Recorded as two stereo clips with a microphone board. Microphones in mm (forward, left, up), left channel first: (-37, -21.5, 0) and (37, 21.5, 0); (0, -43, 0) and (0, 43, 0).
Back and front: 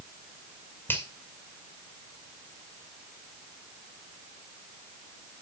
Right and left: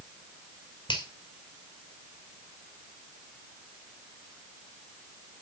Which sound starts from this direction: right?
A finger snap, at 0.9 s.